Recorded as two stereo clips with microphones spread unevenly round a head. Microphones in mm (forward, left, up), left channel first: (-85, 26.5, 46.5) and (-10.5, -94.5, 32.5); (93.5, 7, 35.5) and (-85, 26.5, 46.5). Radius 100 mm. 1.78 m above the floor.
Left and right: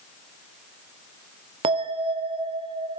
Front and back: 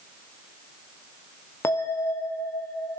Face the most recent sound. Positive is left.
turn(degrees=-80)